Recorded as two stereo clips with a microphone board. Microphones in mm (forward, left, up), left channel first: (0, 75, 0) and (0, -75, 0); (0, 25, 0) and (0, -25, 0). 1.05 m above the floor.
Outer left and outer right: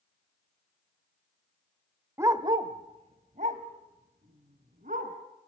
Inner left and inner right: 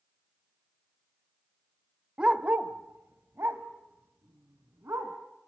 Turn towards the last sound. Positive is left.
turn(degrees=-65)  # may be behind; listen again after turning